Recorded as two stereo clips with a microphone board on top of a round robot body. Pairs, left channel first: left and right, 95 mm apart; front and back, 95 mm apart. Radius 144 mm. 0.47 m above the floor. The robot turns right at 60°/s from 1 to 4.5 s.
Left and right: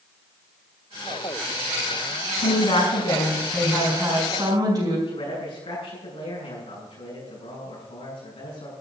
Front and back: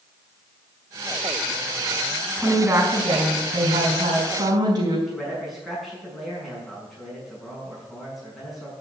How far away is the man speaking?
About 7 m.